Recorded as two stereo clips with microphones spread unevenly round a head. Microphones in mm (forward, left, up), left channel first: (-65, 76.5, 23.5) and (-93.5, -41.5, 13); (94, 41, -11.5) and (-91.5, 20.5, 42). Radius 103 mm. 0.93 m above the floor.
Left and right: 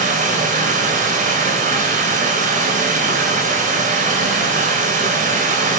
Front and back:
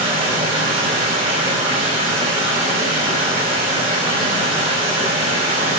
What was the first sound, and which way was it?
Running water, 110° right.